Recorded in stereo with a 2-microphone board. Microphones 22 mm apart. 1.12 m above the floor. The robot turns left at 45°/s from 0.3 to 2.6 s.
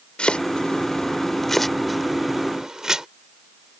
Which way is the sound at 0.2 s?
70° left (ahead or behind).